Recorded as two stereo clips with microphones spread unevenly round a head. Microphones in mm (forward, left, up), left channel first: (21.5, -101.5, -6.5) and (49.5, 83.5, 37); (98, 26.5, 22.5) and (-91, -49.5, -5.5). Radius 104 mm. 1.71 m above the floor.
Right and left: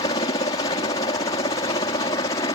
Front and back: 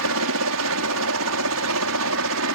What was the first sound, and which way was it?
A helicopter, 165° right.